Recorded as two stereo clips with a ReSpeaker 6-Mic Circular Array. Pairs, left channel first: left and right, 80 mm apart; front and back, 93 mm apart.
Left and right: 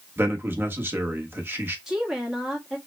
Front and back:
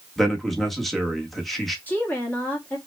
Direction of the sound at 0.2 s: 90° right.